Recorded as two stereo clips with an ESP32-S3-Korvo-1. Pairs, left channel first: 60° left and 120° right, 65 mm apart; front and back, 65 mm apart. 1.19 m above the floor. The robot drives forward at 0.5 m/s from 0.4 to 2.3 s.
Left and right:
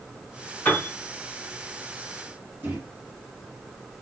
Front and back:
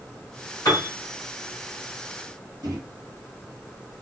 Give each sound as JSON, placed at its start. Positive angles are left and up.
{"t": 0.7, "sound": "a piano", "azimuth_deg": 0, "distance_m": 1.8}
{"t": 2.6, "sound": "a microwave", "azimuth_deg": -175, "distance_m": 1.1}